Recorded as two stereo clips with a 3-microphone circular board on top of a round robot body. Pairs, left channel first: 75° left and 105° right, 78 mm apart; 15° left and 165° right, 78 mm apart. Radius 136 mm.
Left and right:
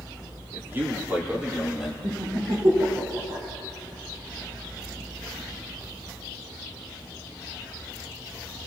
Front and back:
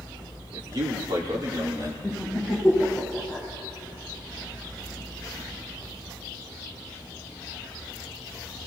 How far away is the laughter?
About 5 m.